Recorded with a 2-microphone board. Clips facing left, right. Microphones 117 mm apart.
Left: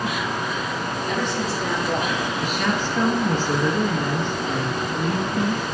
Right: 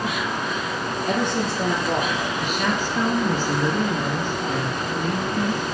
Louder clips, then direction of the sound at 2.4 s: Even; 5° right (ahead or behind).